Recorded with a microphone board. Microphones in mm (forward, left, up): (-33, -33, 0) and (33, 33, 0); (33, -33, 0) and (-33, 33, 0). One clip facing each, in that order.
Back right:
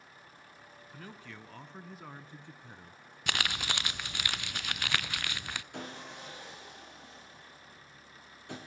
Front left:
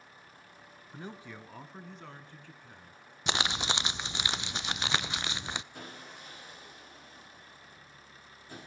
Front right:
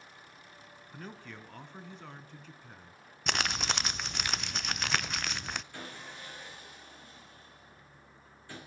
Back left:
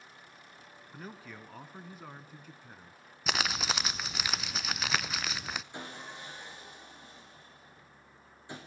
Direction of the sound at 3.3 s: 55° left.